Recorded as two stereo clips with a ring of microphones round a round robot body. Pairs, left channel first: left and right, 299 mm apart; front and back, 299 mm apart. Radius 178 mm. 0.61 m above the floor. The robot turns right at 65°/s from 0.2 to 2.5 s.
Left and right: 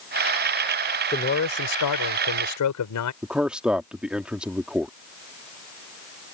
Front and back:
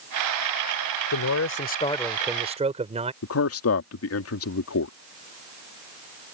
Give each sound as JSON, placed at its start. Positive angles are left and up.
{"t": 1.1, "sound": "a man speaking", "azimuth_deg": 20}
{"t": 3.2, "sound": "a man speaking", "azimuth_deg": -5}